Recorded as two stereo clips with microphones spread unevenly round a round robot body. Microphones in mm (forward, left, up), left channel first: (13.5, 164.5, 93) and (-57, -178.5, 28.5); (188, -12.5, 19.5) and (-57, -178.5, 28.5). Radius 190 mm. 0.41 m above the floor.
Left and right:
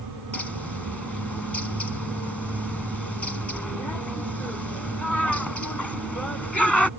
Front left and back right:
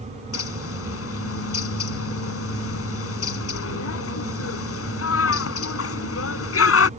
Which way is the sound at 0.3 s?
10° right.